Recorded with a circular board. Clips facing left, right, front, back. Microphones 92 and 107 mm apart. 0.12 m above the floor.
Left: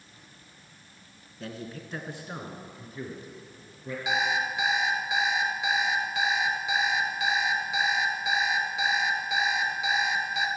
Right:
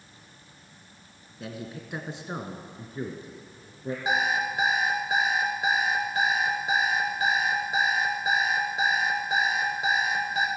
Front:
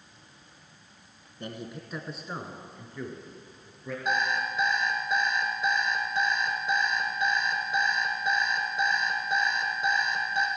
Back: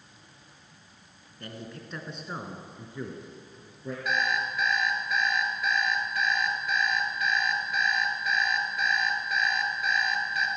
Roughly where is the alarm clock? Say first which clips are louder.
Right 1 dB, front 1 dB; ahead right.